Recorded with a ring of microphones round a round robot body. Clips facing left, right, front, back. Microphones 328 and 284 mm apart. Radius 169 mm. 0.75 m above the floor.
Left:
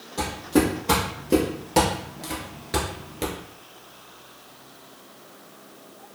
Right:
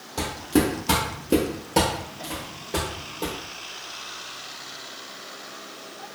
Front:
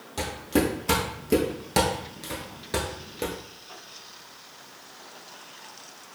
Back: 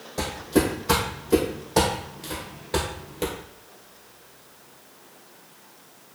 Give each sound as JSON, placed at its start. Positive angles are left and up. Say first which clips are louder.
{"t": 0.2, "sound": "footsteps", "louder": "left 1 dB, back 2 dB", "azimuth_deg": -20, "distance_m": 1.5}